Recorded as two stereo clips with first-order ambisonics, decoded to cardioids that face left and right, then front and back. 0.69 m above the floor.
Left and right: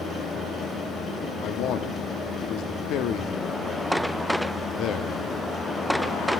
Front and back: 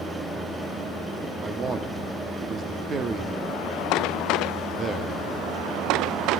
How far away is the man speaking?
About 0.9 m.